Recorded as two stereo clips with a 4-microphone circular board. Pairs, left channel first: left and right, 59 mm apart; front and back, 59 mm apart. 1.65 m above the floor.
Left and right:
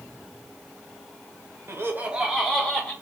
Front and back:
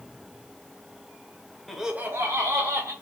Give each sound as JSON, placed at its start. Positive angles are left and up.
{"t": 1.7, "sound": "laughter", "azimuth_deg": -80, "distance_m": 0.7}